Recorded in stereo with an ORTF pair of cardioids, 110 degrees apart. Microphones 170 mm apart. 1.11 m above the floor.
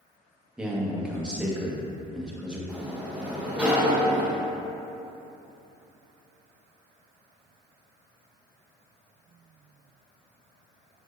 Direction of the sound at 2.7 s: 10° right.